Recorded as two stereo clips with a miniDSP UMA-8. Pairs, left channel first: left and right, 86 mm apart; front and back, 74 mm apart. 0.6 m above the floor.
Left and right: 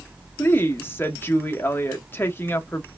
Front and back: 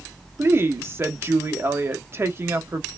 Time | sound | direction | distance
0.4 | a woman speaking | 145° left | 0.7 m